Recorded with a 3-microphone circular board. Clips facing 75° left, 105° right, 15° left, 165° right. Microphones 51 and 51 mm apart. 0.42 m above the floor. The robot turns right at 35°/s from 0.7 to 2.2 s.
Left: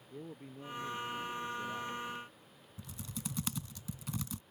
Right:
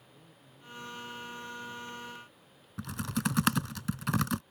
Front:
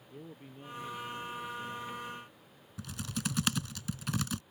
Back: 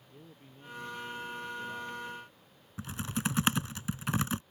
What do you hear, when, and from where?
0.1 s a man speaking: 80° left; by 2.0 s 125° left
2.8 s typing on a keyboard: 105° right